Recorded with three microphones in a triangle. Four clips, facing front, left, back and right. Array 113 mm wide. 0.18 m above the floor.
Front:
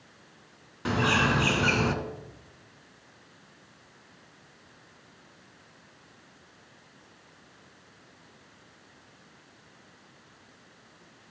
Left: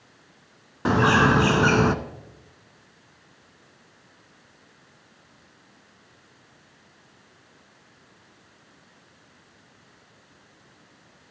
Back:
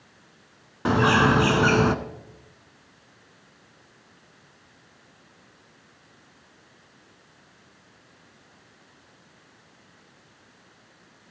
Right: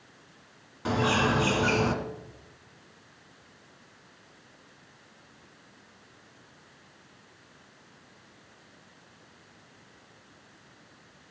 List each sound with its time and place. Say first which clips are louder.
0.8 s a bird: left 7 dB, back 6 dB; 120° left, 0.7 m